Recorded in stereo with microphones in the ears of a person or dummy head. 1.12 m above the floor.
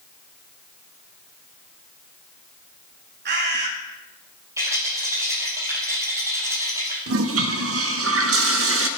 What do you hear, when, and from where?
3.2 s a bird: 60° right (ahead or behind), 1.7 m
4.6 s a rattle: 25° right (ahead or behind), 5.5 m
7.1 s a toilet flushing: 65° right (ahead or behind), 1.2 m